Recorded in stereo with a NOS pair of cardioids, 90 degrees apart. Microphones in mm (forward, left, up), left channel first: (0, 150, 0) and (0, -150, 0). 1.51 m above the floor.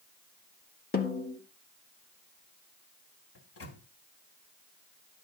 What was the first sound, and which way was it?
A snare drum, 35° left.